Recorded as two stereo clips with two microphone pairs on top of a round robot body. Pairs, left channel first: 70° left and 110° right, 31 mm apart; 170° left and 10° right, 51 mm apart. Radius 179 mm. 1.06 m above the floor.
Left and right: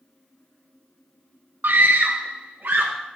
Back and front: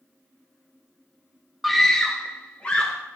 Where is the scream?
100° right, 0.6 m; by 2.9 s 130° right, 1.5 m.